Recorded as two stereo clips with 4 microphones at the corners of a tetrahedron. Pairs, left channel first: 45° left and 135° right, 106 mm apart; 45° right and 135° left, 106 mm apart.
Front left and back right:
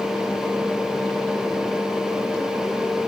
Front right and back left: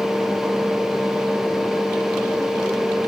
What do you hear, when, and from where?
Only background noise.